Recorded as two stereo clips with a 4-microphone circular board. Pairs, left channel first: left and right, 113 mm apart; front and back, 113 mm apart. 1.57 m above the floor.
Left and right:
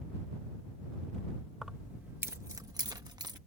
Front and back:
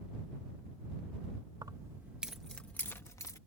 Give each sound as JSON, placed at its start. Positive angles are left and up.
{"t": 1.6, "sound": "keys jangling", "azimuth_deg": -175}